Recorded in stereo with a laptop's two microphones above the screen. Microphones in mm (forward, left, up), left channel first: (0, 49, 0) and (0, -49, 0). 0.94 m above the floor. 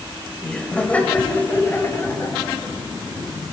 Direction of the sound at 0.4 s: 10° left (ahead or behind).